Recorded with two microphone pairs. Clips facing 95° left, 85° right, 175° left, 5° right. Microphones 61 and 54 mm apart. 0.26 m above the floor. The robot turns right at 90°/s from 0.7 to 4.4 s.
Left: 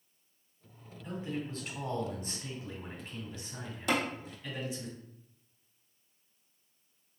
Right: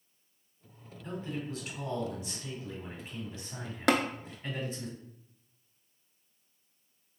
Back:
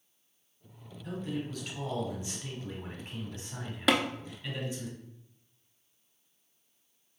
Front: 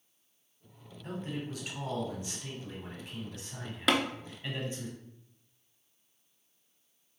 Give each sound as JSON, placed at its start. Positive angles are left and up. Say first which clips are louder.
{"t": 1.0, "sound": "a man speaking", "louder": "even, back 2 dB", "azimuth_deg": 10, "distance_m": 2.0}
{"t": 3.9, "sound": "tapping", "louder": "right 4 dB, back 1 dB", "azimuth_deg": -100, "distance_m": 0.6}